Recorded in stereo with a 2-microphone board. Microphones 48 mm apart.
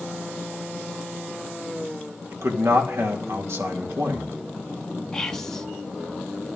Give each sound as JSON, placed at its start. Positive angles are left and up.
{"t": 2.3, "sound": "a man speaking", "side_deg": -70, "distance_m": 2.5}
{"t": 5.1, "sound": "whispering", "side_deg": 15, "distance_m": 0.7}